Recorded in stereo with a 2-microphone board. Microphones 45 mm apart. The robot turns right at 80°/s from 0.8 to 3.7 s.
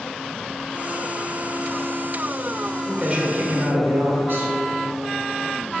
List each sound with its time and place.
2.9 s a man speaking: 175° right, 1.8 m; by 4.5 s 105° right, 1.8 m